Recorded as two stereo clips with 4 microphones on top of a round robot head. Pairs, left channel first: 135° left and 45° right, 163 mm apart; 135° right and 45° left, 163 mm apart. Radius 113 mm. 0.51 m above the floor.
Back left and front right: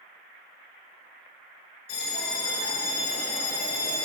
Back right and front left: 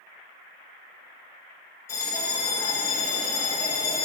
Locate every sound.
1.9 s a bell: 150° left, 1.8 m